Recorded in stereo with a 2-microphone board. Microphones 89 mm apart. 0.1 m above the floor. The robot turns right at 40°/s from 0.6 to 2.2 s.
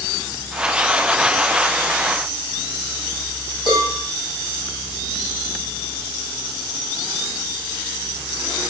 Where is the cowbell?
55° left (ahead or behind), 1.9 m.